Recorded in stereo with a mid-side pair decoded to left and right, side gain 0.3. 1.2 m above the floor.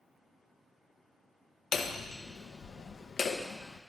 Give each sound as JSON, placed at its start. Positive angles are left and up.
{"t": 1.7, "sound": "hammering", "azimuth_deg": 65, "distance_m": 0.7}